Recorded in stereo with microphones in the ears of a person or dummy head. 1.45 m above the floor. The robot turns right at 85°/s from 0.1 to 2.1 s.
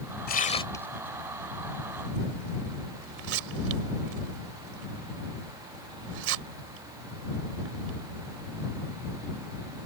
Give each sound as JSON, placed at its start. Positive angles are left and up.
{"t": 0.3, "sound": "tearing paper", "side_deg": 55}